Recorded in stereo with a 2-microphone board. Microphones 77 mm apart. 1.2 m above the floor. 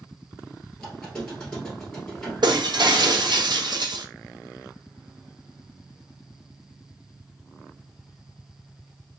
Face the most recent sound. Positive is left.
turn(degrees=-70)  # may be behind; listen again after turning